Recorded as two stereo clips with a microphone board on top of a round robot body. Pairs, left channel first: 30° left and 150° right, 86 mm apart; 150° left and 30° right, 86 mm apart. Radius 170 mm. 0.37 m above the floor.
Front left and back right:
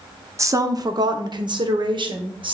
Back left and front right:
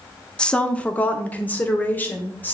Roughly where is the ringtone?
No ringtone in this recording.